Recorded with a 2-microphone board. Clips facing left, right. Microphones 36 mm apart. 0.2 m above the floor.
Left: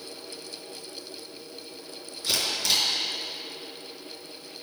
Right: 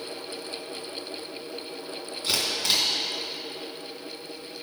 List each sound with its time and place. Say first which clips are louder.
2.2 s a camera shutter: even; 30° right (ahead or behind), 2.5 m